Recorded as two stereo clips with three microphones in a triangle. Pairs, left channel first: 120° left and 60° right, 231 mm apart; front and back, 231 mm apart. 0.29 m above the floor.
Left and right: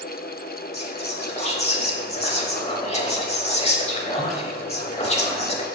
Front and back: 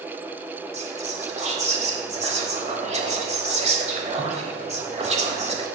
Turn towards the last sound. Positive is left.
turn(degrees=155)